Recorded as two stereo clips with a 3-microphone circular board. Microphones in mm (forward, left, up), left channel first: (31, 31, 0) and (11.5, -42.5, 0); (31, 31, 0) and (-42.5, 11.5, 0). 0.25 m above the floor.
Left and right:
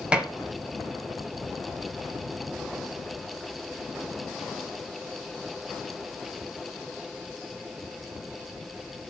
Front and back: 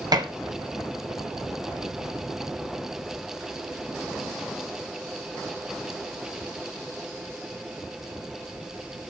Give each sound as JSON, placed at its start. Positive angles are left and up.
{"t": 0.1, "sound": "dishes clattering", "azimuth_deg": 180, "distance_m": 1.8}